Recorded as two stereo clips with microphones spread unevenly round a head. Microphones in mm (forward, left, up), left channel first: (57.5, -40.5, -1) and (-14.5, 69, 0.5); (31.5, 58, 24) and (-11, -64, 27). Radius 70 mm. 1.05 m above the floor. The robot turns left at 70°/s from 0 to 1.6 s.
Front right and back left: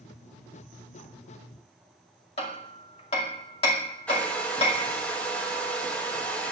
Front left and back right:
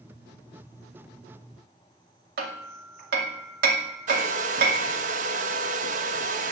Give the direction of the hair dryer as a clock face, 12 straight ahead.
5 o'clock.